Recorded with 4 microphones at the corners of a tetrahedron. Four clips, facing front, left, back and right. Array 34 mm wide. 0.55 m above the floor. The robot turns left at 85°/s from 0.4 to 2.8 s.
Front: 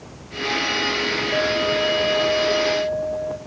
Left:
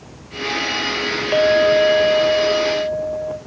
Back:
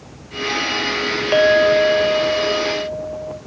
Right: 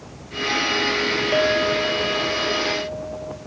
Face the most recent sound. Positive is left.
turn(degrees=35)